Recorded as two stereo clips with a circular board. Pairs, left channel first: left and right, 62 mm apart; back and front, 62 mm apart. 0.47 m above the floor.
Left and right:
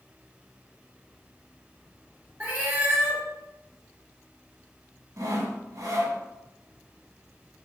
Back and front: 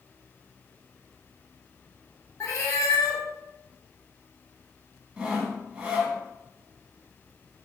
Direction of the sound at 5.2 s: 70° right.